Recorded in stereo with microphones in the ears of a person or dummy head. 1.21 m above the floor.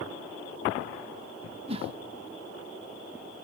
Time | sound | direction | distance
1.7 | a whoosh | 30° right (ahead or behind) | 0.5 m